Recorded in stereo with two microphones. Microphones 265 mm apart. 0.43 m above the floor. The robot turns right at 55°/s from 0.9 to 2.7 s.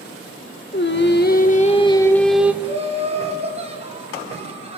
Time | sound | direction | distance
0.7 | singing | 100° left | 0.9 m
2.6 | laughter | 20° right (ahead or behind) | 3.5 m